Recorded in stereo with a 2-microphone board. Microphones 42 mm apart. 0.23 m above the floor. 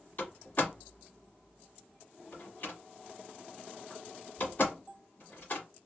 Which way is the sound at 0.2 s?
50° left (ahead or behind).